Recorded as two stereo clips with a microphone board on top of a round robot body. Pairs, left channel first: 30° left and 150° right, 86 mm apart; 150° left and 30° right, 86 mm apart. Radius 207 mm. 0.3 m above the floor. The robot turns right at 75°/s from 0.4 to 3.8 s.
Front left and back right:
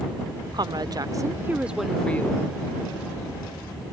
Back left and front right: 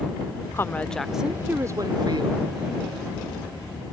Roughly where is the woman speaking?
Behind.